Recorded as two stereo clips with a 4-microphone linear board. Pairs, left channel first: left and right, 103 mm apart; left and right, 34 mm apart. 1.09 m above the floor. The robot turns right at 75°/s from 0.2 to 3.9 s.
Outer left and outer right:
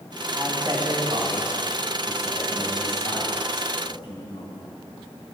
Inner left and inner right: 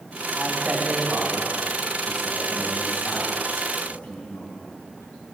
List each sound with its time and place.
0.3 s a man speaking: 150° right, 8.5 m; by 4.6 s 120° left, 8.5 m